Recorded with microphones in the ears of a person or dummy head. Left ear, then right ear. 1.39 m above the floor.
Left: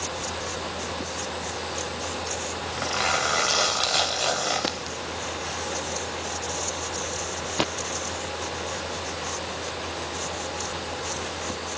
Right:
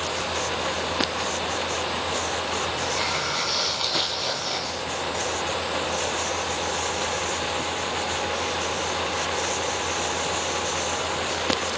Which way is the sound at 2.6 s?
45° left (ahead or behind).